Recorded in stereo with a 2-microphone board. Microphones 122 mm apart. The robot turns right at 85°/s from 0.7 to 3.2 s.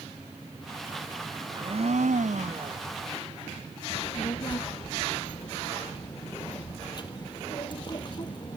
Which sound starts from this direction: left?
A child speaking, at 3.9 s.